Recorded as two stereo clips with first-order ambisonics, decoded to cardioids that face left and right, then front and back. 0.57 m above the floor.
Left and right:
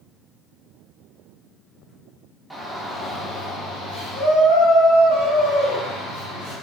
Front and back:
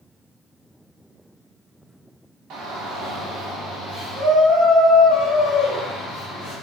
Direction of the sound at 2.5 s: 175° right.